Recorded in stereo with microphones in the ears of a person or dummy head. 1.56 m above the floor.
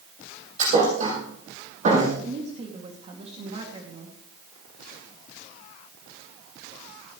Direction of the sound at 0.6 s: 45° right (ahead or behind).